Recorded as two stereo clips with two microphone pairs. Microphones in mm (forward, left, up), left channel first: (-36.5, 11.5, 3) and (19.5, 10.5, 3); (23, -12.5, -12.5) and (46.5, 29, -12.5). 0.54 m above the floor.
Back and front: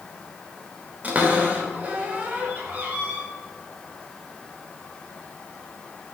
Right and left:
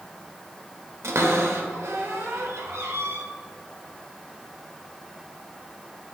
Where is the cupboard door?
60° left, 1.2 m.